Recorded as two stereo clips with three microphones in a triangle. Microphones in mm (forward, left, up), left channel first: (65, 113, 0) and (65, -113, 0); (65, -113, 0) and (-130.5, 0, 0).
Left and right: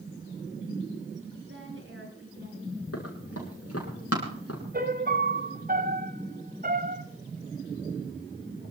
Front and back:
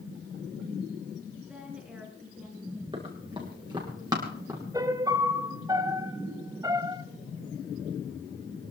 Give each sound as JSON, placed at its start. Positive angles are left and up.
{"t": 1.4, "sound": "a woman speaking", "azimuth_deg": -125, "distance_m": 5.0}
{"t": 2.9, "sound": "running footsteps", "azimuth_deg": 80, "distance_m": 7.0}
{"t": 4.7, "sound": "a piano", "azimuth_deg": -135, "distance_m": 1.3}